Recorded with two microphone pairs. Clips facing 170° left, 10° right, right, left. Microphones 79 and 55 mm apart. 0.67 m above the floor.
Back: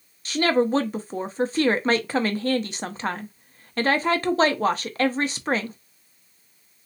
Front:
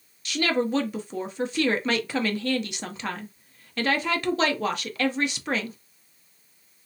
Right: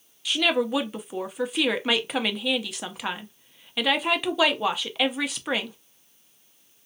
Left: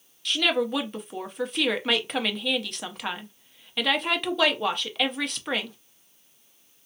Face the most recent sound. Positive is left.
turn(degrees=-175)